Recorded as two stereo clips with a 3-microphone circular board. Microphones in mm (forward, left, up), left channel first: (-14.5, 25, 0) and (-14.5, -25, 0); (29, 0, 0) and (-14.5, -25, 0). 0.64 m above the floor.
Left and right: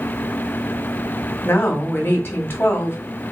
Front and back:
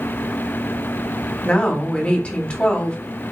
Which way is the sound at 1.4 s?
85° left.